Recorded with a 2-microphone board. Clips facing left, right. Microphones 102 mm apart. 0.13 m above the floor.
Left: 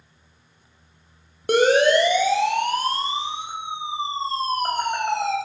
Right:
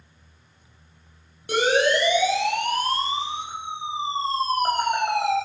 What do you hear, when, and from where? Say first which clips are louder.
1.5 s a siren: left 4 dB; 60° left (ahead or behind), 3.5 m; by 5.3 s 10° right (ahead or behind), 4.5 m